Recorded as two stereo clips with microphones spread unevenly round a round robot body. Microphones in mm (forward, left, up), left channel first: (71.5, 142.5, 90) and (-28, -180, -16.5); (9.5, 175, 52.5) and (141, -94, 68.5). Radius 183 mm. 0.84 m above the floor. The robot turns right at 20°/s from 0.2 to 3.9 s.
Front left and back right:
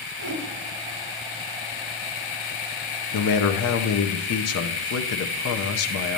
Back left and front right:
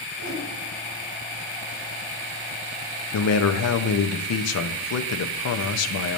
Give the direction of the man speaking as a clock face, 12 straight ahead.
8 o'clock.